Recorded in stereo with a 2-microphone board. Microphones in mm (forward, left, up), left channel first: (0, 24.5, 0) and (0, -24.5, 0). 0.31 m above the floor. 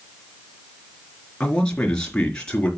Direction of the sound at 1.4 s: 15° left (ahead or behind).